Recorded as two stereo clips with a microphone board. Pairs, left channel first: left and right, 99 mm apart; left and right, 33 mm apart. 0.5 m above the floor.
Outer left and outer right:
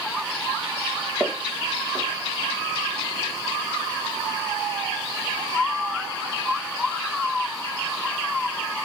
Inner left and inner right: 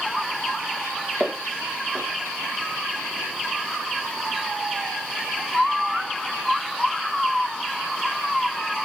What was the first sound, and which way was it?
Footsteps, centre (ahead or behind).